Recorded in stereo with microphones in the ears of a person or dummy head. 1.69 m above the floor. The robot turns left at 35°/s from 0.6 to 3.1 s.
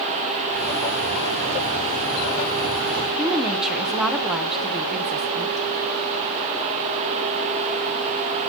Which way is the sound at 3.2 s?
Centre (ahead or behind).